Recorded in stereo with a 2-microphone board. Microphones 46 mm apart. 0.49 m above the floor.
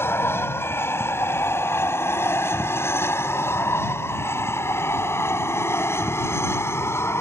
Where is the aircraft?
60° left (ahead or behind); by 7.2 s 70° left (ahead or behind).